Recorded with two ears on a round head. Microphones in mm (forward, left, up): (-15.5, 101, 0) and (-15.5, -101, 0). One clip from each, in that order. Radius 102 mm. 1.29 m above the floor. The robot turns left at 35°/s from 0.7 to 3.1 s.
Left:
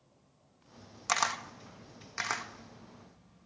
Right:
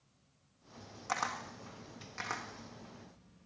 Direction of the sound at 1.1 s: 80° left.